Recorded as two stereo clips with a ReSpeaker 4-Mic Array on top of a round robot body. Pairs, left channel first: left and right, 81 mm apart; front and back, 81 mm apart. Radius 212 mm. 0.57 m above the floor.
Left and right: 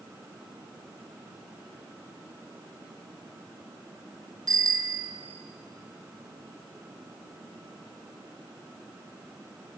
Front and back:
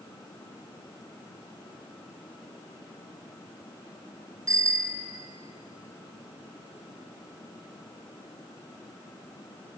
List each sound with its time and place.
4.5 s a bicycle bell: 130° right, 2.5 m